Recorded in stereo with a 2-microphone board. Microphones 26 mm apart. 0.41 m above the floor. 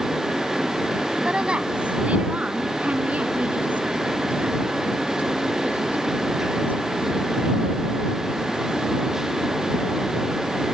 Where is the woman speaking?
40° right (ahead or behind); by 7.7 s 85° right.